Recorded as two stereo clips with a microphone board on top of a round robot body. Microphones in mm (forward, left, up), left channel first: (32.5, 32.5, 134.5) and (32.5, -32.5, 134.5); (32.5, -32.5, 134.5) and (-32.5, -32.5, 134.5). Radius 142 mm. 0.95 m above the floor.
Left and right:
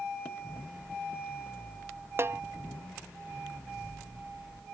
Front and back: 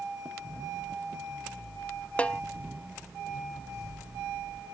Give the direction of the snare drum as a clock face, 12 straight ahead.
2 o'clock.